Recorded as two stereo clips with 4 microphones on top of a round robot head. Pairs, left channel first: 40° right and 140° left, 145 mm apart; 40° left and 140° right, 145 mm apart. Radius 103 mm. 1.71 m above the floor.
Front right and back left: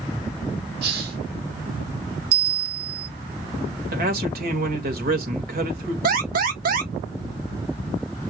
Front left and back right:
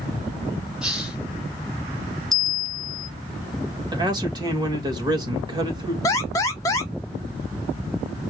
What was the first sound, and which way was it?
A hiss, 135° left.